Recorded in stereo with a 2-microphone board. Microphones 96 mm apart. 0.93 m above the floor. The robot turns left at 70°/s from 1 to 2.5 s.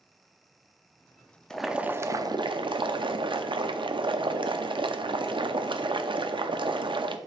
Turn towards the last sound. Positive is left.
turn(degrees=-65)